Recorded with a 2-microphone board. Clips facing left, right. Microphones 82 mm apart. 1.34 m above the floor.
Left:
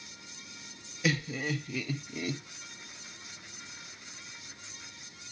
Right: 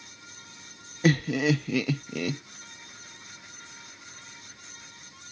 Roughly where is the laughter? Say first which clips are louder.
Right 8 dB; right.